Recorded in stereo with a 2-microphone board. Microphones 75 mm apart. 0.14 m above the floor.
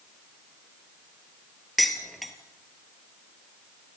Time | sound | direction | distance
1.8 | dishes clattering | centre (ahead or behind) | 2 m